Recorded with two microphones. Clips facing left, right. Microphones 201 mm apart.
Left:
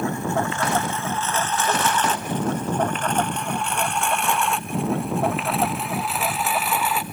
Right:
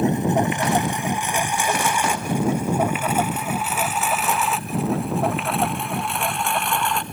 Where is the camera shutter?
No camera shutter in this recording.